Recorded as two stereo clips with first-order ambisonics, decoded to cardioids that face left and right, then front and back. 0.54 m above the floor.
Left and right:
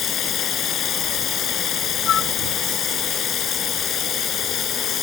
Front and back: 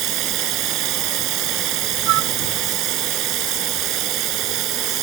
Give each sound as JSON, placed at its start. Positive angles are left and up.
{"t": 0.0, "sound": "running water", "azimuth_deg": 145}
{"t": 2.1, "sound": "a flute", "azimuth_deg": 150}